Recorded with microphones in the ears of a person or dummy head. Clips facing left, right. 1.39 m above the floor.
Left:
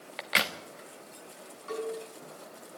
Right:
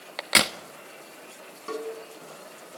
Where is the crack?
55° right (ahead or behind), 1.1 m.